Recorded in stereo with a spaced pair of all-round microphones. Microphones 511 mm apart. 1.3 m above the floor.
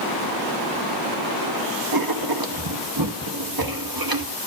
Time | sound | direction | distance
1.9 | writing | 45° right (ahead or behind) | 1.0 m